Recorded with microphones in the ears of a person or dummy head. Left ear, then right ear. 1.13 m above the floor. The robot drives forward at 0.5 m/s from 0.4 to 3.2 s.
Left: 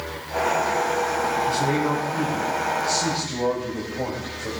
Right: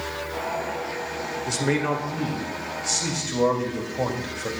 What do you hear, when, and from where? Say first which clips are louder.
1.5 s a man speaking: left 2 dB; 60° right (ahead or behind), 2.0 m; by 4.5 s 45° right (ahead or behind), 2.5 m